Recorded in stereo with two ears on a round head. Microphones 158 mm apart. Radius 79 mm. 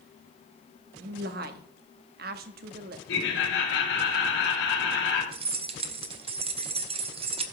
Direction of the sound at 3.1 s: 75° left (ahead or behind).